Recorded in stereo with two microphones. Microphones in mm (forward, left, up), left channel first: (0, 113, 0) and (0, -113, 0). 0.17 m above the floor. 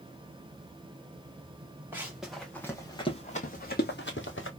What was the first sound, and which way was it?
Running footsteps, 10° right (ahead or behind).